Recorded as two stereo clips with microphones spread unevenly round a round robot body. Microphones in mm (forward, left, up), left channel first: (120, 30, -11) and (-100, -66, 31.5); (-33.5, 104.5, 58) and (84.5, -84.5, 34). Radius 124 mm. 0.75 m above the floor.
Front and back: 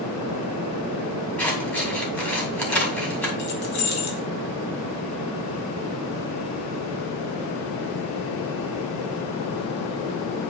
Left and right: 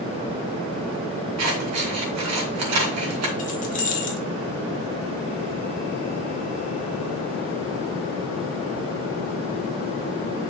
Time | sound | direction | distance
1.4 | scissors | 60° right | 2 m
3.4 | keys jangling | 65° left | 1.8 m